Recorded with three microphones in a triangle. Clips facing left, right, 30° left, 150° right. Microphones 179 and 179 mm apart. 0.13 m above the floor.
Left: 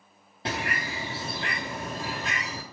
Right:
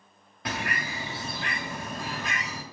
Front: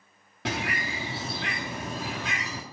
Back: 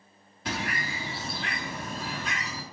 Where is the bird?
30° left, 2 m.